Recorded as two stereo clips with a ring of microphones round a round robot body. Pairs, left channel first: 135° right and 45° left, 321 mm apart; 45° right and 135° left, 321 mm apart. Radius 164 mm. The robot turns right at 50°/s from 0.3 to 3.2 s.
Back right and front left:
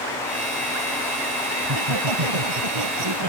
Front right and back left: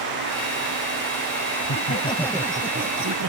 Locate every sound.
1.6 s laughter: 10° left; by 3.3 s 85° left